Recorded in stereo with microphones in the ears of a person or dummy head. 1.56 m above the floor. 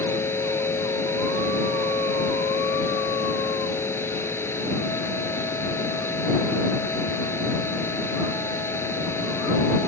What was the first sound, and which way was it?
A machine running, 10° left (ahead or behind).